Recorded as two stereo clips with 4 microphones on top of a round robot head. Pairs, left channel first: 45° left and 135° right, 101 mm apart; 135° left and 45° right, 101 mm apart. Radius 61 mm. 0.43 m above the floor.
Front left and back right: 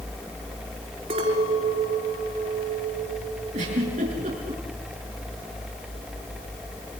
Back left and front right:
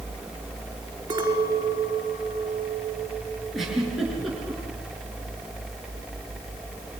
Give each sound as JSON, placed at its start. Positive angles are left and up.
{"t": 1.1, "sound": "a clink", "azimuth_deg": -100, "distance_m": 5.0}
{"t": 3.5, "sound": "a giggle", "azimuth_deg": -130, "distance_m": 7.0}